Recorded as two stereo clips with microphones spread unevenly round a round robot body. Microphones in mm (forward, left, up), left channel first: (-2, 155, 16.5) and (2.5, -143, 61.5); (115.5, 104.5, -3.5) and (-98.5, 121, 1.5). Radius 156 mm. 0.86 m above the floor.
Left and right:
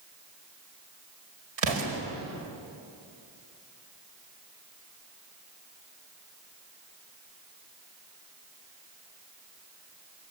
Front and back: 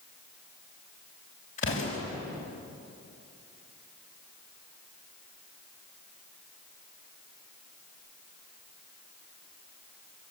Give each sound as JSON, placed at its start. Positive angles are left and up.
{"t": 1.6, "sound": "an explosion", "azimuth_deg": -75, "distance_m": 5.0}